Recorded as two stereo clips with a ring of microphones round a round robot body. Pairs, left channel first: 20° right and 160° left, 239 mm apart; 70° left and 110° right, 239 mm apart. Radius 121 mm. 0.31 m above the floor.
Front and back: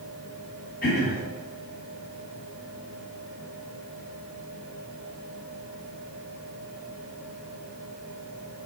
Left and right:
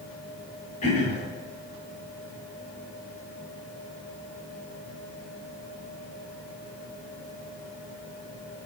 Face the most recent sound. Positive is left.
turn(degrees=15)